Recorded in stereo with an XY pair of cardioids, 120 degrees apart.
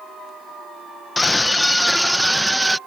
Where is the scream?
10° left; by 2.8 s 15° right.